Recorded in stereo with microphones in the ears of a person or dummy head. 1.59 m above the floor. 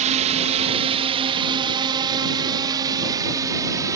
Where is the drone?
40° right (ahead or behind); by 4.0 s 20° right (ahead or behind).